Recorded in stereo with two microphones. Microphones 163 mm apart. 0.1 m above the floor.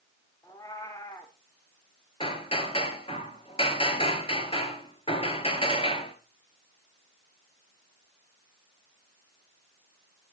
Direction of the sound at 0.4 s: 20° left (ahead or behind).